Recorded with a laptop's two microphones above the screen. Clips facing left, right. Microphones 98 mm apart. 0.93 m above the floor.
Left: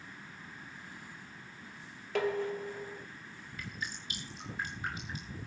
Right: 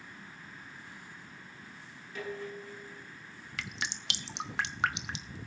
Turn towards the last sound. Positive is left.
turn(degrees=-85)